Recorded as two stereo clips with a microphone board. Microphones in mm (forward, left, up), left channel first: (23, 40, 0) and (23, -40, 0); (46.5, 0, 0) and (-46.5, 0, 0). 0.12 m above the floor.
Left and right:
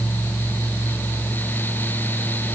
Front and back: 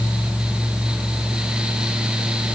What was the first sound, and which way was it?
Only background noise.